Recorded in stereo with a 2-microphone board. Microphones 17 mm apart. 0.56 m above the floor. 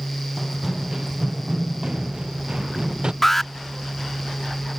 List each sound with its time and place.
0.4 s running footsteps: 5° right (ahead or behind); by 3.1 s 45° right (ahead or behind)
3.2 s an alarm: 10° left (ahead or behind)